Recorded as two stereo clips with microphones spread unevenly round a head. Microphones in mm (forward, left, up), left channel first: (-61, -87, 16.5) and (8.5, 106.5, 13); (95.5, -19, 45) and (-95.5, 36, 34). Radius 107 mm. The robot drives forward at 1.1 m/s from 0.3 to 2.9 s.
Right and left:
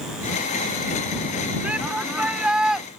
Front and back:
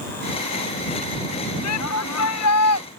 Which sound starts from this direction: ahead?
A shout, at 1.6 s.